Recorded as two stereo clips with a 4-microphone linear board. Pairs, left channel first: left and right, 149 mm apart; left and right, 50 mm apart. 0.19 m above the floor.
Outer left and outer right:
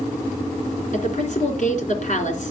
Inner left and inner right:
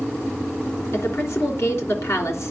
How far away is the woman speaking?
About 3 m.